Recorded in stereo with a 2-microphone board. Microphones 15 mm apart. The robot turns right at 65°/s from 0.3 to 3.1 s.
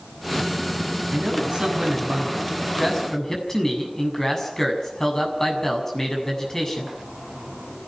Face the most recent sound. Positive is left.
turn(degrees=40)